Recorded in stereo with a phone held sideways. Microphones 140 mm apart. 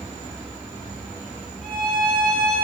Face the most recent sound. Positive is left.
turn(degrees=5)  # may be behind; listen again after turning